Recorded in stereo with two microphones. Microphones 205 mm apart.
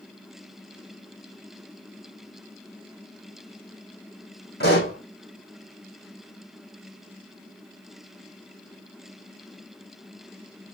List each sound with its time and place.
4.6 s a pop: 50° left (ahead or behind), 4.5 m